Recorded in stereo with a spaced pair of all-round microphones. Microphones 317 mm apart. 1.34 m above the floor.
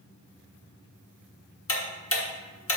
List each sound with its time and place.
1.7 s ticking: 45° left (ahead or behind), 1.2 m